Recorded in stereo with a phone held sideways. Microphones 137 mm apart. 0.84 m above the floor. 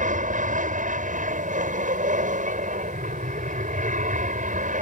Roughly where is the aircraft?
Right.